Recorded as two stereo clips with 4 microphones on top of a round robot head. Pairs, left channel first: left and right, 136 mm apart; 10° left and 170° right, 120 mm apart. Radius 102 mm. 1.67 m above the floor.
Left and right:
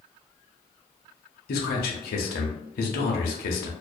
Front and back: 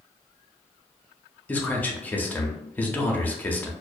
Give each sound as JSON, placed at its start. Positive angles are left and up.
{"t": 1.5, "sound": "a man speaking", "azimuth_deg": 90, "distance_m": 0.6}